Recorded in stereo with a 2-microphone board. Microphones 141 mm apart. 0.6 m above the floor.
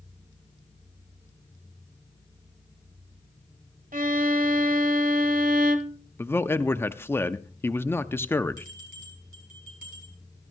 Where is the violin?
80° right, 0.8 m.